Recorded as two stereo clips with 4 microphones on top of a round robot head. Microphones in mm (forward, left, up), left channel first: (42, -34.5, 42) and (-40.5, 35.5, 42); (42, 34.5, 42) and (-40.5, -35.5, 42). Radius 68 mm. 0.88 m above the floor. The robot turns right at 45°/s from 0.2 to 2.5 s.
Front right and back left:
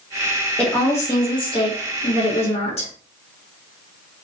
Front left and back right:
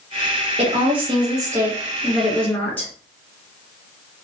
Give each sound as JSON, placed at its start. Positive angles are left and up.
{"t": 0.6, "sound": "a woman speaking", "azimuth_deg": -120, "distance_m": 1.2}